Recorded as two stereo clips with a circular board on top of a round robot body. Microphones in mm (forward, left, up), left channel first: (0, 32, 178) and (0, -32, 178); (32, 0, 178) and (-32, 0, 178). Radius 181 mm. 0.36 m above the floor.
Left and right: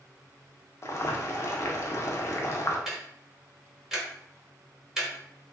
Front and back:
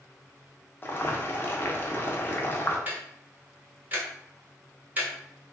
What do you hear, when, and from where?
0.8 s boiling: 50° left, 0.7 m
2.9 s ticking: 170° right, 1.2 m